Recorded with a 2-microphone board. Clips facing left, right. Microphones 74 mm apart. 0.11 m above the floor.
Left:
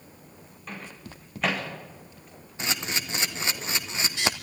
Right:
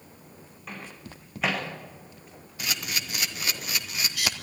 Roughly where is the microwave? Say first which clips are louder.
Left 1 dB; centre.